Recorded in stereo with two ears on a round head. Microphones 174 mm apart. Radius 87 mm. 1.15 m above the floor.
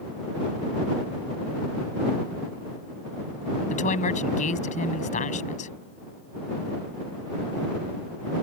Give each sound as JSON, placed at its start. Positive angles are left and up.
{"t": 3.7, "sound": "a woman speaking", "side_deg": 40}